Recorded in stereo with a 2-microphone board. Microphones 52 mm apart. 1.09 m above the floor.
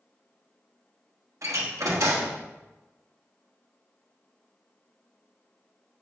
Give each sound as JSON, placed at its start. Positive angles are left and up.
{"t": 1.4, "sound": "a door slam", "side_deg": -80, "distance_m": 1.2}